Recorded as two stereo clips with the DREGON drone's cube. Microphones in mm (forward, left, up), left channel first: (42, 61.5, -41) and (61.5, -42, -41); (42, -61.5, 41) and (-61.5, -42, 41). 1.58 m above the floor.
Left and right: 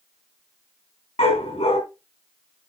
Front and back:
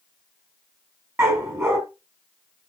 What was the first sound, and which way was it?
A dog barking, 105° left.